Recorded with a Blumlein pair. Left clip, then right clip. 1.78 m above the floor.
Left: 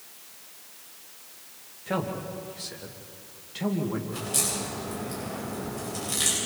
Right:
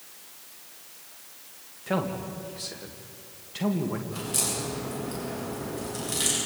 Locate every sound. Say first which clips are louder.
1.9 s a man speaking: right 1 dB; 5° right, 2.5 m
4.1 s a crack: left 1 dB; 5° left, 9 m